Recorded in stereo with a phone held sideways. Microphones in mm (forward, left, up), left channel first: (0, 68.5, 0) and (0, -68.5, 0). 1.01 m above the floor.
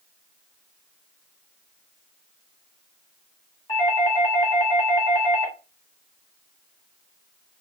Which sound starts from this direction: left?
A doorbell, at 3.7 s.